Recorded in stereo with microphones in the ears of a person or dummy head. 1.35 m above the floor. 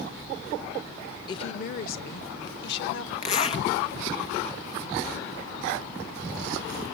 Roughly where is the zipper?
Left.